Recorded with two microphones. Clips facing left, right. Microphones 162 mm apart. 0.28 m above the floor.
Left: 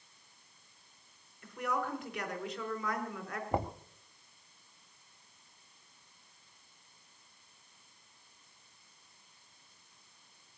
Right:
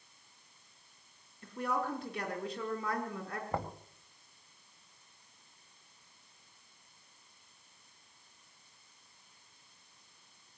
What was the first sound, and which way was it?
A woman speaking, 30° right (ahead or behind).